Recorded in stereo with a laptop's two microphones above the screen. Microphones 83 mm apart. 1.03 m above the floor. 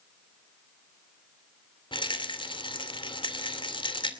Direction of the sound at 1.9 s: 85° left.